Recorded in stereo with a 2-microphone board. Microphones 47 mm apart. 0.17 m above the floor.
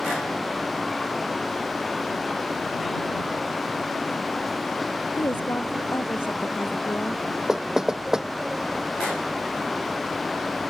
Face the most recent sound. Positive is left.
turn(degrees=-10)  # may be behind; listen again after turning